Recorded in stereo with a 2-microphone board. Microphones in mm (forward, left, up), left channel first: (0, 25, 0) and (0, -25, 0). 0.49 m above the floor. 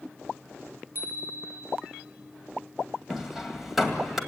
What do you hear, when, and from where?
0.9 s a bicycle bell: 45° right (ahead or behind), 4 m
3.1 s hammering: centre (ahead or behind), 2 m